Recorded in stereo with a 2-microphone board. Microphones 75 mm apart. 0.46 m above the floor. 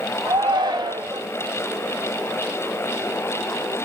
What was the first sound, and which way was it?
A shout, 75° right (ahead or behind).